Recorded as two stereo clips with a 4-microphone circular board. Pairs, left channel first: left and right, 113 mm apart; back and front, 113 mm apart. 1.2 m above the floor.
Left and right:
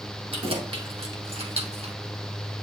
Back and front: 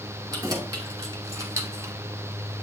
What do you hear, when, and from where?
0.3 s keys jangling: 60° right, 3 m; by 1.9 s 65° right, 0.9 m